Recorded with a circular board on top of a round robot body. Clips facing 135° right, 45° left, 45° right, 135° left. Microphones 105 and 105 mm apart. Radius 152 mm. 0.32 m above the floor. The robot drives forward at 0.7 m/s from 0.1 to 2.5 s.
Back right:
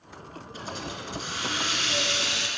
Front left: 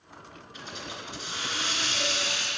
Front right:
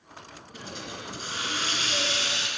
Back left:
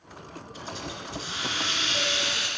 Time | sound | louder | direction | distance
0.5 | a hiss | back right 4 dB, back left 1 dB | 85° right | 3 m